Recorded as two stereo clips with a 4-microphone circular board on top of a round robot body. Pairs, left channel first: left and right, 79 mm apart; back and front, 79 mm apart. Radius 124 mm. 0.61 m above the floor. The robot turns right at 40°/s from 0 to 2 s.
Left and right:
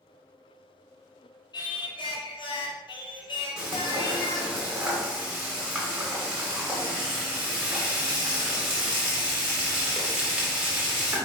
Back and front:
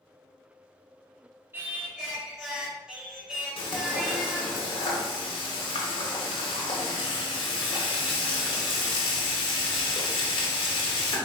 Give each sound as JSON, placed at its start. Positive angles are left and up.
{"t": 1.5, "sound": "singing", "azimuth_deg": 65, "distance_m": 0.9}
{"t": 3.6, "sound": "frying", "azimuth_deg": -170, "distance_m": 0.7}